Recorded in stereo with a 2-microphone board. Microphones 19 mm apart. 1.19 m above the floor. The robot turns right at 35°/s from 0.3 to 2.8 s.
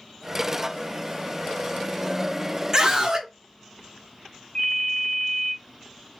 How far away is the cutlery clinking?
I don't hear cutlery clinking.